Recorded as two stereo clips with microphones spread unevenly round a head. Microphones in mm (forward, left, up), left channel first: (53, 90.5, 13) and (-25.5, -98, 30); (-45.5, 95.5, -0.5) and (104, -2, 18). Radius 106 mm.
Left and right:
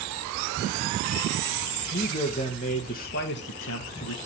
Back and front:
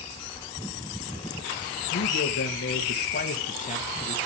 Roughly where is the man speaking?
Behind left.